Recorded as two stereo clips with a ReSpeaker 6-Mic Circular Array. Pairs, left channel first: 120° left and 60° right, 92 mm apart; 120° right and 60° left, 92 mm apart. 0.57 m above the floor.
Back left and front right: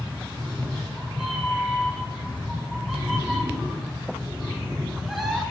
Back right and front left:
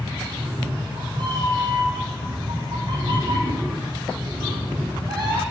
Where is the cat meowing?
25° left, 3 m.